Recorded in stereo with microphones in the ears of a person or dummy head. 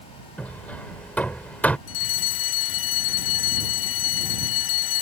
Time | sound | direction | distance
0.4 | hammering | 10° left (ahead or behind) | ?
1.9 | a fire alarm | 70° left (ahead or behind) | ?